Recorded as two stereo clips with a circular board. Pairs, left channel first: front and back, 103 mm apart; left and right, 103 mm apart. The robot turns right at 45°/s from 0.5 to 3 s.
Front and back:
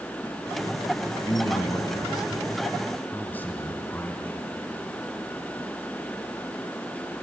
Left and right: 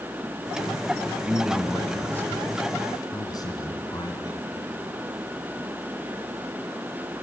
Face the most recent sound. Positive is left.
turn(degrees=65)